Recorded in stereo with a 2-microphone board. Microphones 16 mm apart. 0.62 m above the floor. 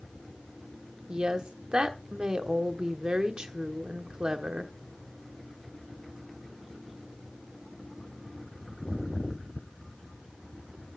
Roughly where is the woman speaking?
Right.